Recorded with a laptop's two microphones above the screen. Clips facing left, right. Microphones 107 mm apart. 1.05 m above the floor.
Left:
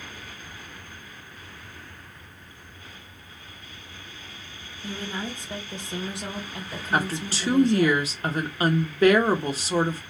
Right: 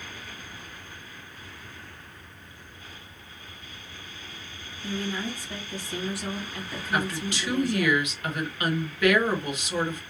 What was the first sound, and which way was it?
A woman speaking, 25° left (ahead or behind).